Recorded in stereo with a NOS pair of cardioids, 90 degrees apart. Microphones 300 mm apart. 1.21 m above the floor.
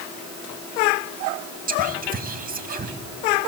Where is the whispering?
30° right, 2.5 m.